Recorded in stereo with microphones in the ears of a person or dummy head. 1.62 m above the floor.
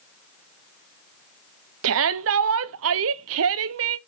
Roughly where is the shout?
Right.